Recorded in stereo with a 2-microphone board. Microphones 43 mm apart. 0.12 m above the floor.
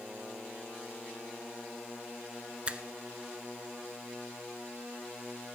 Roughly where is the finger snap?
Right.